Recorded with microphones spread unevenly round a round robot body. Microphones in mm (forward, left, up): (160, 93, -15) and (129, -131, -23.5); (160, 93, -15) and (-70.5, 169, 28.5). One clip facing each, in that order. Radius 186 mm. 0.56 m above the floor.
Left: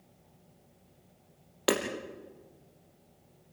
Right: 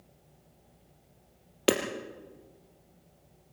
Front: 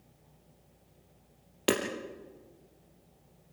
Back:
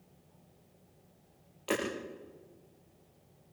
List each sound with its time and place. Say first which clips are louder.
1.7 s hammering: right 3 dB, front 5 dB; 40° right, 4 m